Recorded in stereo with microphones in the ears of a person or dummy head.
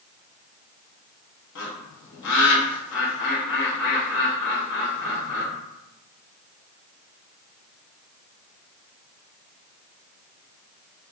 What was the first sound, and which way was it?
A bird, 60° left (ahead or behind).